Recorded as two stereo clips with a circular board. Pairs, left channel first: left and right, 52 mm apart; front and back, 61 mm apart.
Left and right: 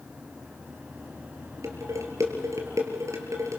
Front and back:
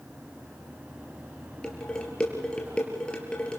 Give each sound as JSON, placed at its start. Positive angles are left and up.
{"t": 1.6, "sound": "dishes clattering", "azimuth_deg": -75, "distance_m": 4.0}